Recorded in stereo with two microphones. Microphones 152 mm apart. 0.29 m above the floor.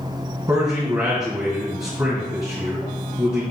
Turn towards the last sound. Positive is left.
turn(degrees=-20)  # may be behind; listen again after turning